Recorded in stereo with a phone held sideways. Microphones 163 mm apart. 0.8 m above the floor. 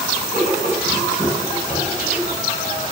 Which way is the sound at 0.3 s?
60° right (ahead or behind).